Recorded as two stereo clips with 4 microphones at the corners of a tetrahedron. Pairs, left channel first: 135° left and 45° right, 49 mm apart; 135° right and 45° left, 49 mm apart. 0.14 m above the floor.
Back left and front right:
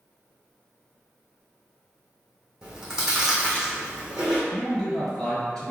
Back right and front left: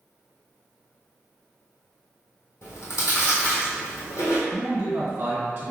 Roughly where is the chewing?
Behind right.